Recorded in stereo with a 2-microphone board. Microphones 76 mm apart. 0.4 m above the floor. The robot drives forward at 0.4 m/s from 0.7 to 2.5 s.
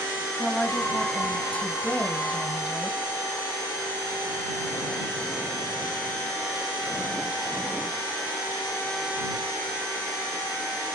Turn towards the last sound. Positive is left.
turn(degrees=25)  # may be behind; listen again after turning